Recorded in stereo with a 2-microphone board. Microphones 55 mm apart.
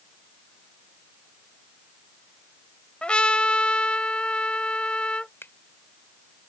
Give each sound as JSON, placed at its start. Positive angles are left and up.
{"t": 3.0, "sound": "a trumpet", "side_deg": 20}
{"t": 5.4, "sound": "a finger snap", "side_deg": 45}